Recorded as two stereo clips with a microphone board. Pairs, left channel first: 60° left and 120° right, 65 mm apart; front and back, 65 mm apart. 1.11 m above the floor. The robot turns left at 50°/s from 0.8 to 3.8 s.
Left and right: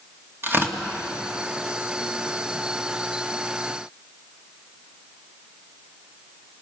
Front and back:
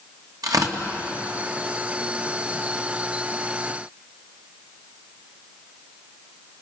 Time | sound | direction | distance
0.4 | tearing paper | 170° right | 2.5 m